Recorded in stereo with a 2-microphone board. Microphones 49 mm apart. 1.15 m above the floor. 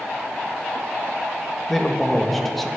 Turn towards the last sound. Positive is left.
turn(degrees=5)  # may be behind; listen again after turning